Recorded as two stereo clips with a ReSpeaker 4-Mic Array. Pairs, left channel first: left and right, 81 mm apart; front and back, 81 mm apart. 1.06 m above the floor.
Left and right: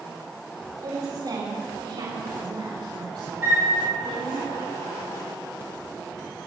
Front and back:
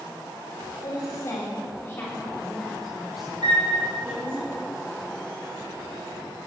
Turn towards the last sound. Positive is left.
turn(degrees=-155)